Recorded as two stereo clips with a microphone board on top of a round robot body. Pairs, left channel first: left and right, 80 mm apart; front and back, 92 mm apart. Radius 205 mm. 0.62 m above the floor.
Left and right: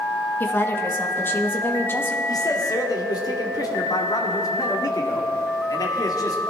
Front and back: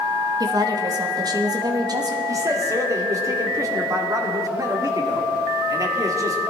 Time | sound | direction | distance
0.4 | a woman speaking | 150° left | 1.7 m
2.3 | a man speaking | 130° left | 2.0 m